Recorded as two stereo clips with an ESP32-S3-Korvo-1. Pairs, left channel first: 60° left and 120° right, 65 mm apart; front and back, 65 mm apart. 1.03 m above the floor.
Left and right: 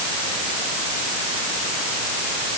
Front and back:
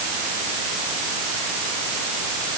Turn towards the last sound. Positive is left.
No sound to turn to.